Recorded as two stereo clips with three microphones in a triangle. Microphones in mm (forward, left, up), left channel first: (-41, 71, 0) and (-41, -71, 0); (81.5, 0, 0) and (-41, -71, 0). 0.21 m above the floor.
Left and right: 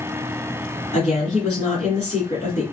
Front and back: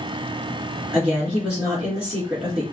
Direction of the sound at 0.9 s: 125° left.